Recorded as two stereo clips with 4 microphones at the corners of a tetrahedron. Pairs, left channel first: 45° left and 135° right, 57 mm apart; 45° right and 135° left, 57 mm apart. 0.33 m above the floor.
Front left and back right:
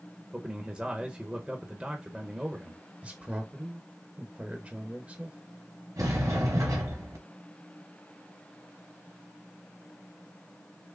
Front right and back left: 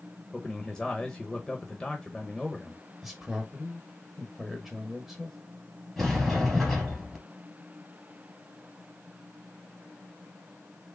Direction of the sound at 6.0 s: 135° right.